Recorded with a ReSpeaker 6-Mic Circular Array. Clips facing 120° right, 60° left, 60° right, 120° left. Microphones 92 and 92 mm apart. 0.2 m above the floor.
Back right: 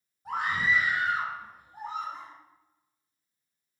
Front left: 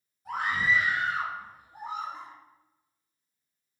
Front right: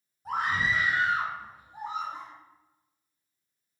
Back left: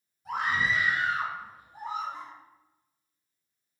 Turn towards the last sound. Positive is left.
turn(degrees=5)